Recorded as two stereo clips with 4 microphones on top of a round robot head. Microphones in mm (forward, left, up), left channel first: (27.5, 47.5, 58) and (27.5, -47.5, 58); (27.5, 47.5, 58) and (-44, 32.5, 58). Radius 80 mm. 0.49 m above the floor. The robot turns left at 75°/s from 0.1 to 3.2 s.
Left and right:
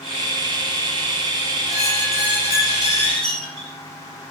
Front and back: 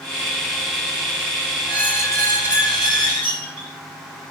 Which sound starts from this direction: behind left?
A squeak, at 1.7 s.